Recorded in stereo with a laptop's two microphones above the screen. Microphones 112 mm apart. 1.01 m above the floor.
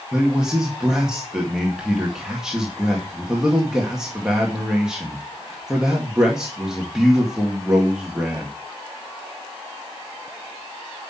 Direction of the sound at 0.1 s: 5° right (ahead or behind).